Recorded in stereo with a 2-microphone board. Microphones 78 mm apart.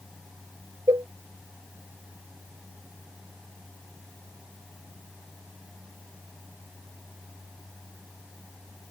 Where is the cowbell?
65° right (ahead or behind).